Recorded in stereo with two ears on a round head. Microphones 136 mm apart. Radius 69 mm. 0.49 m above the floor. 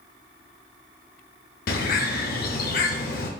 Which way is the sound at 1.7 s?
65° left (ahead or behind).